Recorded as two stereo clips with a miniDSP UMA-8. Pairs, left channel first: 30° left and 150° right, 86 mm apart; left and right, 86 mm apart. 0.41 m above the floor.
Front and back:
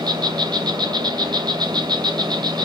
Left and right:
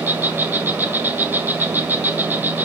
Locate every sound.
0.0 s an insect: 155° right, 1.6 m